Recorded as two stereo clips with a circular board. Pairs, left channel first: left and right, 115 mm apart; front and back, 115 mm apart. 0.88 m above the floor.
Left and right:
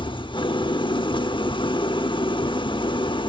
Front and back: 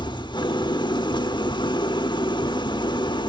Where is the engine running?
50° left, 1.0 m.